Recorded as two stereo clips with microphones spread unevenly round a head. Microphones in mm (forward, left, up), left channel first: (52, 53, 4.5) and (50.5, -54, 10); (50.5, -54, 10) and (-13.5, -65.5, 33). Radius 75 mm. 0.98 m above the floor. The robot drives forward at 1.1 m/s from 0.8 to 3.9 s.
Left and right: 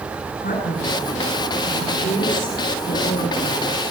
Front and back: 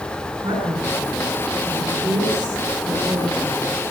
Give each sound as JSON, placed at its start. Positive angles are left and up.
{"t": 0.4, "sound": "a man speaking", "azimuth_deg": 120, "distance_m": 9.5}